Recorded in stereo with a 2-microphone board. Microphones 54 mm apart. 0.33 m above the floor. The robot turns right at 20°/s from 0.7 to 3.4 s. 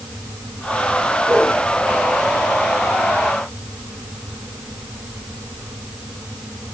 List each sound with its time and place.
1.3 s a whoosh: 40° right (ahead or behind), 8.5 m; by 1.6 s 35° right (ahead or behind), 8.5 m